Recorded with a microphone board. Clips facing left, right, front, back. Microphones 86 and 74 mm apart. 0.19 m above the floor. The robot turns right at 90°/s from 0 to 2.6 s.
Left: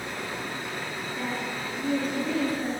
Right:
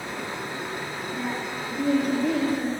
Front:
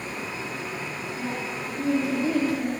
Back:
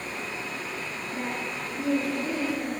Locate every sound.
1.1 s a woman speaking: 150° right, 3 m; by 2.7 s 20° right, 3 m